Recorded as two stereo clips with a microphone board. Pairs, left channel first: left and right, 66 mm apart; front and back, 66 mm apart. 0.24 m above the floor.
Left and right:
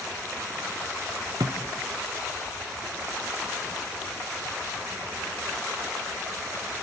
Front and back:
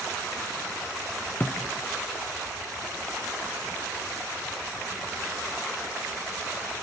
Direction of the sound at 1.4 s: 60° right.